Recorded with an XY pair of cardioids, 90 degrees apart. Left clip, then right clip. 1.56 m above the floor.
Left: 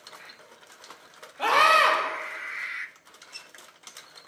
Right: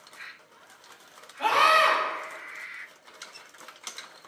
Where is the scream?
60° left, 3.5 m.